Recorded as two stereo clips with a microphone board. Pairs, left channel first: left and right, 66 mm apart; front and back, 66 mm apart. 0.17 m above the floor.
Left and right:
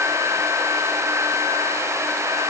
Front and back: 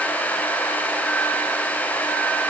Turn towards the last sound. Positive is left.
No sound to turn to.